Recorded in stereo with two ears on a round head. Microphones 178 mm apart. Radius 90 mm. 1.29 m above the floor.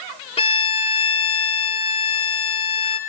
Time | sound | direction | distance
0.4 | a violin | 30° left (ahead or behind) | 1.4 m